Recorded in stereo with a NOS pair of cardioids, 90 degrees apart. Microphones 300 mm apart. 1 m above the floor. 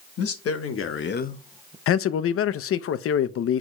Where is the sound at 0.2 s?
60° left, 1.9 m; by 1.8 s 50° right, 0.6 m.